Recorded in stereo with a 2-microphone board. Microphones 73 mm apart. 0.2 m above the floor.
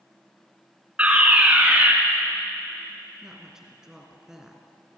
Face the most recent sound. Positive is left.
turn(degrees=-10)  # may be behind; listen again after turning